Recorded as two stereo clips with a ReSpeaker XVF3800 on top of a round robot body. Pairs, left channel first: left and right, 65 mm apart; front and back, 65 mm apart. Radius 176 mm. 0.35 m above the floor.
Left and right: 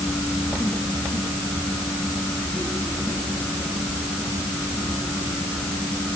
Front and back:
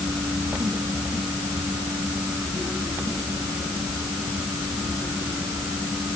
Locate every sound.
Only background noise.